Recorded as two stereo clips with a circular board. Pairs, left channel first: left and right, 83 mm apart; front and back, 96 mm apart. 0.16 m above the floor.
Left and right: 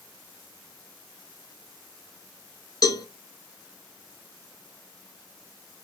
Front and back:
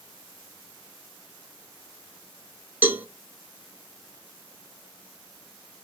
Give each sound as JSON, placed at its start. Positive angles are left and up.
{"t": 2.8, "sound": "a cowbell", "azimuth_deg": 115, "distance_m": 0.5}